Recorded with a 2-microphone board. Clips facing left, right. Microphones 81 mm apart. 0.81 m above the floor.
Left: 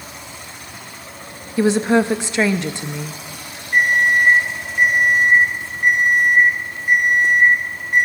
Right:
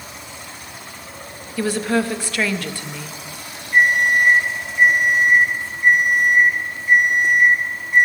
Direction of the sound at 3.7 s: 55° left (ahead or behind).